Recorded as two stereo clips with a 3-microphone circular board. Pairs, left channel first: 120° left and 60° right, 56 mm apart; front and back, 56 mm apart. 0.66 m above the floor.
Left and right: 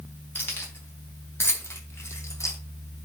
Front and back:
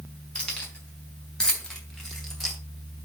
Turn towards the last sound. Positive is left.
turn(degrees=90)